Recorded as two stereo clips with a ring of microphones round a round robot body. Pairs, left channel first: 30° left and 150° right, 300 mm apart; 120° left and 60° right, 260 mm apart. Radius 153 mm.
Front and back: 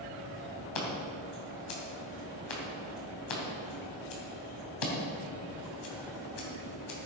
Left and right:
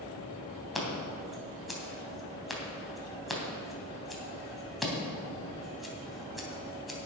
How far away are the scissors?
About 3 m.